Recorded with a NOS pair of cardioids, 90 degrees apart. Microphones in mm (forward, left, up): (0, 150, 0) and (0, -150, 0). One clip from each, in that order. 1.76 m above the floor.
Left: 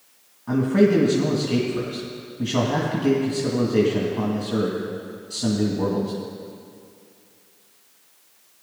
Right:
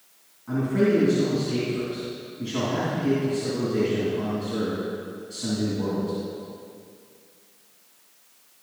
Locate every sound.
0.5 s a man speaking: 55° left, 2.5 m